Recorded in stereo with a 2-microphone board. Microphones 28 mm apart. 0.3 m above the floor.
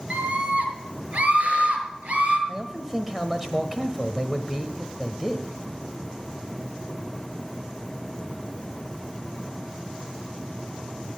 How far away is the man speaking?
About 1.2 m.